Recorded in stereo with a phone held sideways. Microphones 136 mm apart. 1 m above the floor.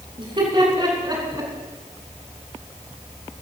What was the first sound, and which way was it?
Laughter, 45° right (ahead or behind).